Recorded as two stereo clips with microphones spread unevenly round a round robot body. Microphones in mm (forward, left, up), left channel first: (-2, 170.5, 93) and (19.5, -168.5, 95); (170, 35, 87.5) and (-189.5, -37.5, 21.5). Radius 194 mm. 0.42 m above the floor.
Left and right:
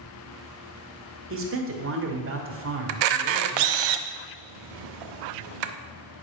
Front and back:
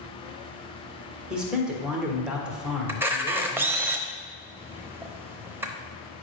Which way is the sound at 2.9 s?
85° right.